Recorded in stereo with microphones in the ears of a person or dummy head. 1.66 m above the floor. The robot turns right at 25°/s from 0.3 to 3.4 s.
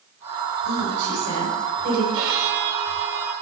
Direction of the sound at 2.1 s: 70° right (ahead or behind).